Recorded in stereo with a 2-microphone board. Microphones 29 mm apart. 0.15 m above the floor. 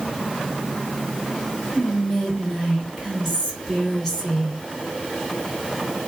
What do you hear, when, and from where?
1.8 s whispering: 15° left (ahead or behind), 1.9 m